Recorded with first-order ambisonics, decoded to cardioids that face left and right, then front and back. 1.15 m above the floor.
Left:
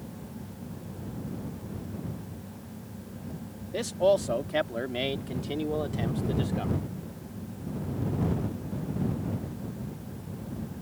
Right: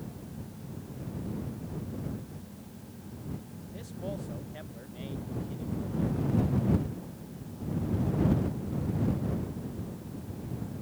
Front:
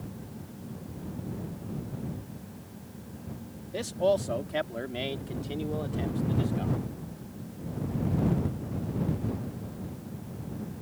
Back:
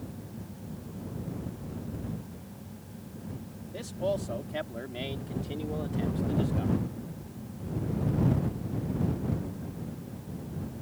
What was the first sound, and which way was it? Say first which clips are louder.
A man speaking: left 17 dB, front 5 dB; 65° left.